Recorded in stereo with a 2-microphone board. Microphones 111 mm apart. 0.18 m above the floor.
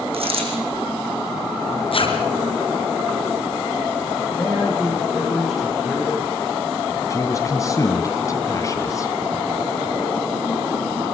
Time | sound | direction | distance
0.1 | a dropped coin | 65° right (ahead or behind) | 5 m
1.9 | a zipper | 60° left (ahead or behind) | 3 m
4.3 | a man speaking | 5° left (ahead or behind) | 8 m
7.1 | a man speaking | 30° left (ahead or behind) | 1.7 m